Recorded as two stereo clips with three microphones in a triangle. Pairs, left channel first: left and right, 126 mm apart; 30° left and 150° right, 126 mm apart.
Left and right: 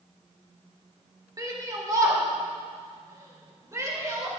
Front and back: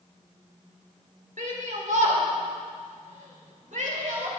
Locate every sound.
1.4 s a shout: 150° right, 3 m; by 4.3 s 155° right, 5 m